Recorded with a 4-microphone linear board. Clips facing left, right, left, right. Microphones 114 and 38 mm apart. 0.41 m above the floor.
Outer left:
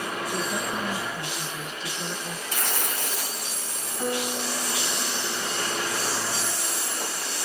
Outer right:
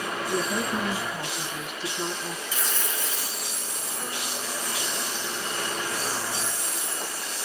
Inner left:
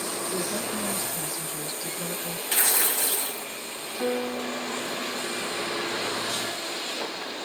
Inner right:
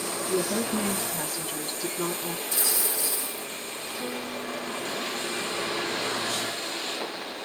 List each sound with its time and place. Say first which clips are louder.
0.3 s a woman speaking: outer right 4 dB, inner right 6 dB; 50° right (ahead or behind), 3 m; by 2.4 s 70° right (ahead or behind), 3 m
2.5 s tearing paper: outer left 2 dB, inner left 4 dB; 65° left (ahead or behind), 1.0 m
4.0 s a piano: outer left 8 dB, inner left 8 dB; 35° left (ahead or behind), 2.5 m